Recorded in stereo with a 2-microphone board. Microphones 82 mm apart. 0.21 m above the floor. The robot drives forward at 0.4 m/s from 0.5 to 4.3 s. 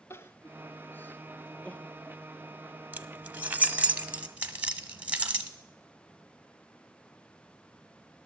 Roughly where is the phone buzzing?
No phone buzzing in this recording.